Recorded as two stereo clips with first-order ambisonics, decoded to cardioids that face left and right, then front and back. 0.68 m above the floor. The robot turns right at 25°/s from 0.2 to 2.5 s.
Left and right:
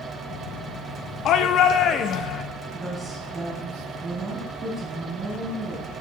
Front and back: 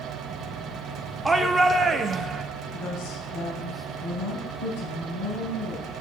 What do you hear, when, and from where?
1.2 s a shout: 100° left, 0.6 m; by 2.4 s 130° left, 0.6 m
2.7 s a woman speaking: 5° right, 6 m